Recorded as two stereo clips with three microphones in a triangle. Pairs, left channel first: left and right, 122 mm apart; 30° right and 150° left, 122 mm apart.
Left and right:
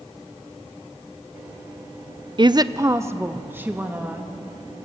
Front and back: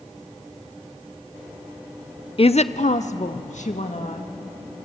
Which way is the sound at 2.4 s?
55° right.